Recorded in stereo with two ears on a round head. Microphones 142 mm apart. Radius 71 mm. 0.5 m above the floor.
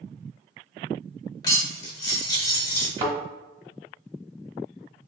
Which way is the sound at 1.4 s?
25° left (ahead or behind).